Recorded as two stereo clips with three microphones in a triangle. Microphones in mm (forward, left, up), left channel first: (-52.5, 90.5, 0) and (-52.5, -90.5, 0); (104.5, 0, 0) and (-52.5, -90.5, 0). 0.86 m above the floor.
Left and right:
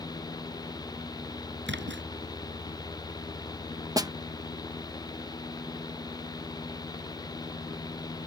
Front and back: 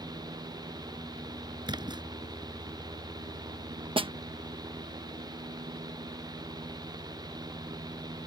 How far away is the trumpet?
I don't hear a trumpet.